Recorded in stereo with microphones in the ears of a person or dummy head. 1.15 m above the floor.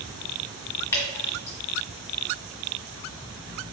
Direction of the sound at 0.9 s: 15° left (ahead or behind).